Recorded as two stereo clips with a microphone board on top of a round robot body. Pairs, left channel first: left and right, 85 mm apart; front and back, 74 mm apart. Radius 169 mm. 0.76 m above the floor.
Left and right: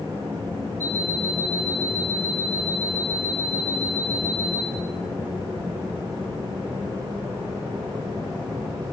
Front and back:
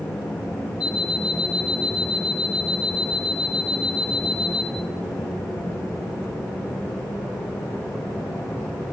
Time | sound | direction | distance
0.8 | an alarm clock | 25° left | 5 m